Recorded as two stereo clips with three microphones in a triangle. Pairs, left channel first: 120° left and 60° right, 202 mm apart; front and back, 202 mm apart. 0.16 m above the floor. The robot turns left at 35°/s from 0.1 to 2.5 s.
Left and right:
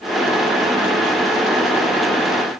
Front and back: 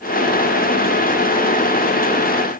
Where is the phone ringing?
I don't hear a phone ringing.